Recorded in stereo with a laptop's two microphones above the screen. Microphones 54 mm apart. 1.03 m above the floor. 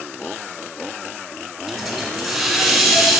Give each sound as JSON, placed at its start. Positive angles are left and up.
{"t": 1.7, "sound": "a hiss", "side_deg": 5, "distance_m": 3.0}